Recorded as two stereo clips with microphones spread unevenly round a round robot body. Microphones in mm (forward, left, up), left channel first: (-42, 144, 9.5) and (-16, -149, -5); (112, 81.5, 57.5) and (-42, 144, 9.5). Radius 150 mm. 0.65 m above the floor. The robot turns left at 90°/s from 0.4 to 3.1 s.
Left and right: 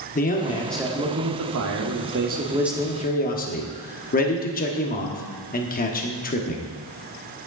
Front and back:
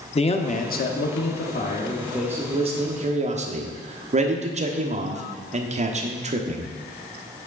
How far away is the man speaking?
About 1.1 m.